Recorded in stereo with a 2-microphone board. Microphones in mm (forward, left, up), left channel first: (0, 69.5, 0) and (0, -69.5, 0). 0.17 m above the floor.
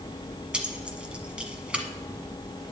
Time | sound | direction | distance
0.5 | keys jangling | 10° right (ahead or behind) | 1.2 m